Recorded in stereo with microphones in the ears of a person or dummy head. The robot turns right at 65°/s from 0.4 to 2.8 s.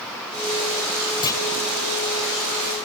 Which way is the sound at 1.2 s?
20° left (ahead or behind).